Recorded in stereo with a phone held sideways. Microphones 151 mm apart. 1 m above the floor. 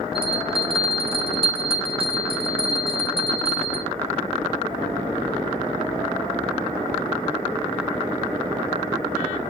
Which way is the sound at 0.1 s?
40° right (ahead or behind).